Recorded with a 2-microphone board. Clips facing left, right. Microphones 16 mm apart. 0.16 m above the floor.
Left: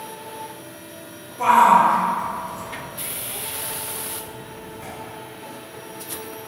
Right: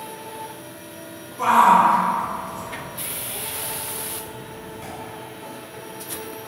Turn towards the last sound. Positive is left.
turn(degrees=-35)  # may be behind; listen again after turning